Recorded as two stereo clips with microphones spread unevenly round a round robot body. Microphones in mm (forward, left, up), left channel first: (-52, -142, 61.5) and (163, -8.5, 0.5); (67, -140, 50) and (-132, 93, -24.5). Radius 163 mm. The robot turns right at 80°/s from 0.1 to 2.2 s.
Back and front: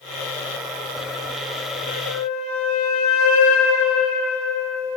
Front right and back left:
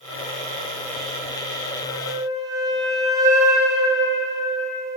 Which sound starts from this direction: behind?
A flute, at 1.8 s.